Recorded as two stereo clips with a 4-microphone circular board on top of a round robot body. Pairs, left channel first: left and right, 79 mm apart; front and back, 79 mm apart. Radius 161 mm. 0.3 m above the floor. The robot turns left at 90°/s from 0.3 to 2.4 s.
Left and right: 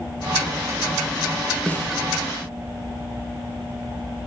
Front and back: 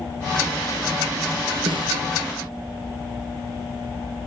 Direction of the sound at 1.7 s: 165° left.